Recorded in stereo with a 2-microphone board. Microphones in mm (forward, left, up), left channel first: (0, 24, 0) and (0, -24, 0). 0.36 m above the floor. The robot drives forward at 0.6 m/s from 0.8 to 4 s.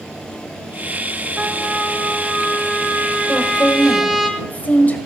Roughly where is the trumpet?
Right.